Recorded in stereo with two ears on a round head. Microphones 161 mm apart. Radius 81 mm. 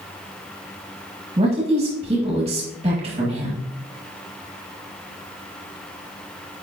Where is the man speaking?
35° right (ahead or behind), 2.0 m.